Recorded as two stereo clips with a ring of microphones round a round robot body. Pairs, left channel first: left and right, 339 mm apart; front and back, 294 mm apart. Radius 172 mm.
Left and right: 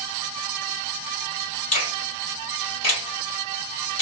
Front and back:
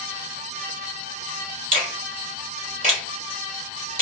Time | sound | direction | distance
1.7 | a finger snap | 125° left | 2.0 m